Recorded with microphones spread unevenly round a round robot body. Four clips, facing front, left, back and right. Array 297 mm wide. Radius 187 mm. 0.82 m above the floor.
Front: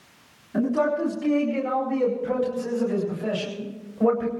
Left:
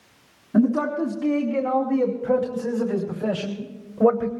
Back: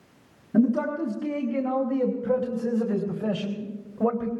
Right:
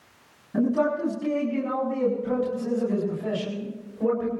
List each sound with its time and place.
0.5 s a man speaking: 145° left, 6 m; by 4.3 s 120° left, 3 m